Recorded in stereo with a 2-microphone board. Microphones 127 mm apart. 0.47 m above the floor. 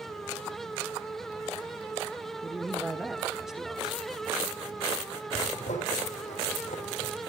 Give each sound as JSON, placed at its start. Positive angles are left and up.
{"t": 2.4, "sound": "a man speaking", "side_deg": -5, "distance_m": 1.1}
{"t": 5.3, "sound": "a zipper", "side_deg": 65, "distance_m": 5.0}